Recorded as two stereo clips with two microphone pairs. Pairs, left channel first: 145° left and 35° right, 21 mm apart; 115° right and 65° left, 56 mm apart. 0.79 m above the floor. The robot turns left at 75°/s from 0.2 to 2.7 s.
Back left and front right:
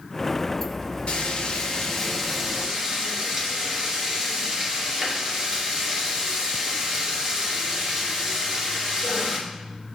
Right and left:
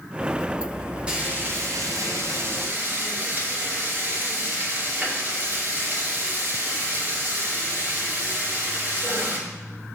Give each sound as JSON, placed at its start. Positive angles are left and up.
{"t": 1.1, "sound": "frying", "azimuth_deg": 135, "distance_m": 2.0}